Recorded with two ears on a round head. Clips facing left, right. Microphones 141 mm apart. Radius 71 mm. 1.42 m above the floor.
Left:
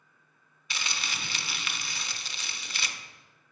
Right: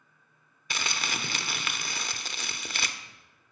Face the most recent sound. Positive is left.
turn(degrees=-40)  # may be behind; listen again after turning